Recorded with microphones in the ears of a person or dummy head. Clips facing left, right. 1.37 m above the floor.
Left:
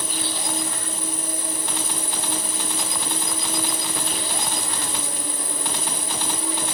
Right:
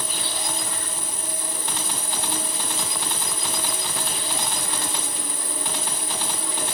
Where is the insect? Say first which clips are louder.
Left 2 dB; 25° left (ahead or behind), 7 m.